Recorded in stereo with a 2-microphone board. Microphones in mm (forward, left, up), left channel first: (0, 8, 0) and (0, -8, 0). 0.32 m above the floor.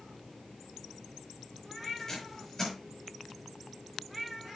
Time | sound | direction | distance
2.0 | tape being pulled | 15° left (ahead or behind) | 5 m